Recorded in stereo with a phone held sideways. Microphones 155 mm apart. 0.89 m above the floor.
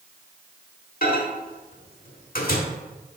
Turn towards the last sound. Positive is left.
turn(degrees=80)